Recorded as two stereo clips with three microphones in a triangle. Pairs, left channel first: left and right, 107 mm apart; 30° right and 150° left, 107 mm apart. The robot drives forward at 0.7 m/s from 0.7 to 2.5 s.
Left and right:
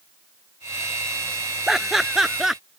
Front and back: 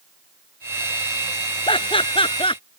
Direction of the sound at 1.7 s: 5° right.